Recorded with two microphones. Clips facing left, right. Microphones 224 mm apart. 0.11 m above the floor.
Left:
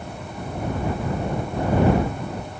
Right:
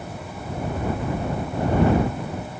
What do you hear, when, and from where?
Only background noise.